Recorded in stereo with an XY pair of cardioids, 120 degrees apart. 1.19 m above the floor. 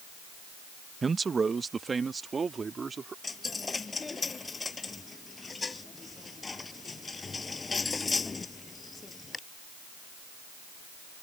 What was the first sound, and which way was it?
A man speaking, 25° right.